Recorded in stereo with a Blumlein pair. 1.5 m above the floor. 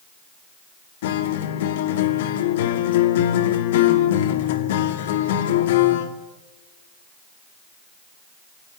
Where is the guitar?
55° left, 2 m.